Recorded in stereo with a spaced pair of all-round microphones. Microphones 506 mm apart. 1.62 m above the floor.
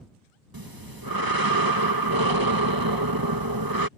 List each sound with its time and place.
0.5 s breathing: 45° right (ahead or behind)